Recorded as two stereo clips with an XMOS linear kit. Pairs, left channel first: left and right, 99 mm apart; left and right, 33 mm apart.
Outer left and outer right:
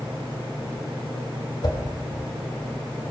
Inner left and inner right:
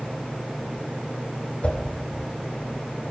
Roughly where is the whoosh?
Left.